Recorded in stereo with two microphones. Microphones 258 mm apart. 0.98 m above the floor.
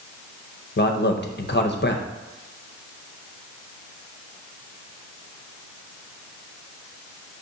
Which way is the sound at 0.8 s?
40° left (ahead or behind).